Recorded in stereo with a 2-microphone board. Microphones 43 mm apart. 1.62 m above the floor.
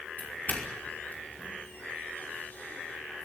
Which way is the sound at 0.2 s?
45° left (ahead or behind).